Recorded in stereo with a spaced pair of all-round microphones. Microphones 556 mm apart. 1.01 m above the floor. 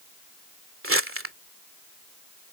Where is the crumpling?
25° right (ahead or behind).